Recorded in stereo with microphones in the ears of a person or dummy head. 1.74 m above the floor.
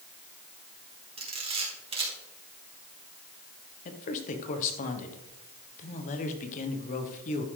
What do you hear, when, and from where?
1.2 s a camera shutter: 30° right (ahead or behind), 3 m
3.9 s a man speaking: 40° left (ahead or behind), 1.5 m